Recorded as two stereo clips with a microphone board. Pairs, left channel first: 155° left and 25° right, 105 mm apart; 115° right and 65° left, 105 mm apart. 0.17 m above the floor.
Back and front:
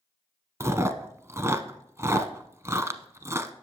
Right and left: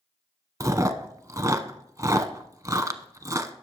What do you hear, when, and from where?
0.6 s chewing: 25° left, 0.7 m